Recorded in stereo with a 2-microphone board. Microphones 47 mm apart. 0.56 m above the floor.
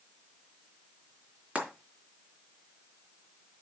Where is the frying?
25° right (ahead or behind), 3.5 m.